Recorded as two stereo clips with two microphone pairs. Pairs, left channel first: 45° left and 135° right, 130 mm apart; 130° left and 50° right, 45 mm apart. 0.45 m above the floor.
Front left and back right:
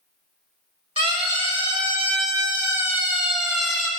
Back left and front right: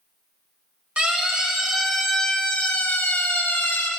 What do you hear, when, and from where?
1.0 s a siren: 105° right, 3 m; by 3.9 s 130° left, 3 m